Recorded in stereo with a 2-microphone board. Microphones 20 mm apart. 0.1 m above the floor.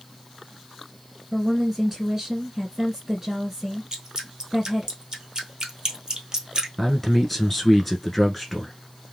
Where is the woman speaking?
20° right (ahead or behind), 2 m.